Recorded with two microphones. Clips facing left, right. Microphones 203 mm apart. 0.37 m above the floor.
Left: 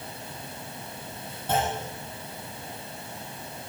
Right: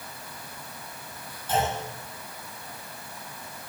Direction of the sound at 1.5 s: 55° left (ahead or behind).